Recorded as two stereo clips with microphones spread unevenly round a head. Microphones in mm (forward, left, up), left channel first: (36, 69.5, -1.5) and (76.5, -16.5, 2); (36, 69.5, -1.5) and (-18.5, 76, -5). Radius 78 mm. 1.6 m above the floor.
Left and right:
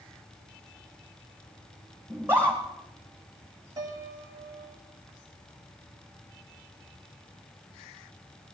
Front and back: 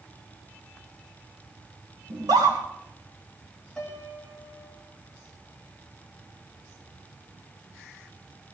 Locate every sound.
2.1 s a scream: 145° right, 1.6 m
3.8 s a piano: 85° right, 1.8 m